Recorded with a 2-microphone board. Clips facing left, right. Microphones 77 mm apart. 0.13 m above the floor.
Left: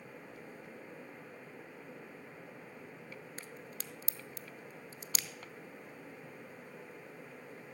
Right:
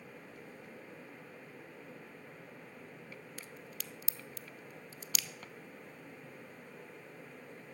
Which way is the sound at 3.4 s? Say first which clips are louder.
Left 1 dB; 35° left (ahead or behind).